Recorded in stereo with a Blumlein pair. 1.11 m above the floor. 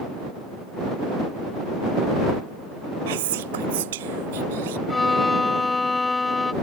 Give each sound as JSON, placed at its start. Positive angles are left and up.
{"t": 3.1, "sound": "whispering", "azimuth_deg": -55}
{"t": 4.9, "sound": "a violin", "azimuth_deg": 10}